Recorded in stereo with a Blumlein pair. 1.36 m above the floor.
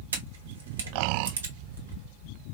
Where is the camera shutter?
65° right, 1.3 m.